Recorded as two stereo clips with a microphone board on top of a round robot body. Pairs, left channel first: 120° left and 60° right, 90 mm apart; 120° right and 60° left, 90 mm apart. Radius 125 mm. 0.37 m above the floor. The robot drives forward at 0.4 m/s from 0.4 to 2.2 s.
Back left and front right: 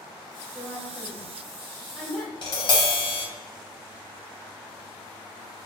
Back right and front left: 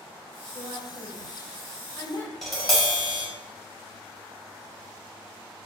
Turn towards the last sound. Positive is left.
turn(degrees=155)